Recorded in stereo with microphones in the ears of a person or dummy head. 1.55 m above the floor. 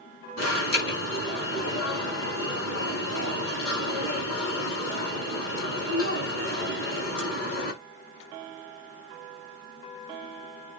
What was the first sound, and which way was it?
An alarm, 85° left.